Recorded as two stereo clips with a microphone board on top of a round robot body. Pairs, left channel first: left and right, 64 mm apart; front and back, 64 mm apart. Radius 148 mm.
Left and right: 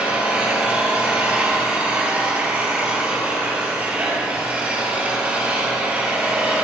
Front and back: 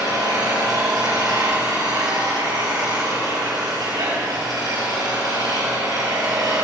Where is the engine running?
160° right, 6 m.